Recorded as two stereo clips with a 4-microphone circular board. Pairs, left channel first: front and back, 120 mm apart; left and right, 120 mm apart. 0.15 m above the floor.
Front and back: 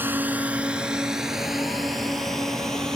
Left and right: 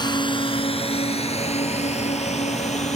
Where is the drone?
115° left; by 3.0 s 85° left.